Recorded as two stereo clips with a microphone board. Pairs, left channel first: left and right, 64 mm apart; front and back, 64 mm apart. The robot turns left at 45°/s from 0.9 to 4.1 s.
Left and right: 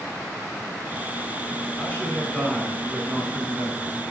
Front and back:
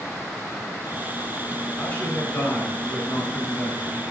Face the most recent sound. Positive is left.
turn(degrees=-55)